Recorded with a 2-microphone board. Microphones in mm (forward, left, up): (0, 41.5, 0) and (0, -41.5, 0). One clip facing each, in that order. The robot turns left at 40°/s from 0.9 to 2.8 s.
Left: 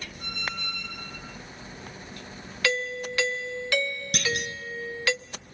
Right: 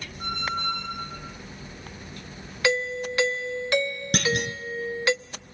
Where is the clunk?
55° right (ahead or behind), 1.1 m.